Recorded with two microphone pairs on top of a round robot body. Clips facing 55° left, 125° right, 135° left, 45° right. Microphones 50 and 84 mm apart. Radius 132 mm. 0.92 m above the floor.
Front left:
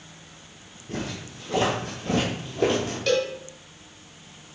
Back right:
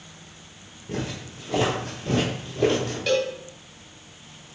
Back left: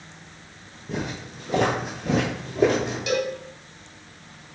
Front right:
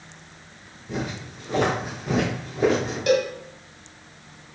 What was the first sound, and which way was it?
Footsteps, straight behind.